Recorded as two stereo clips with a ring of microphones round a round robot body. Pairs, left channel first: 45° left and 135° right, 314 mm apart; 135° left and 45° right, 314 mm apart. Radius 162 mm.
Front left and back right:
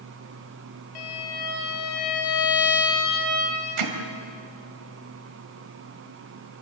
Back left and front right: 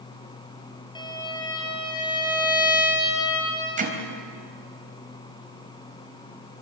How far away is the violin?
About 4.5 m.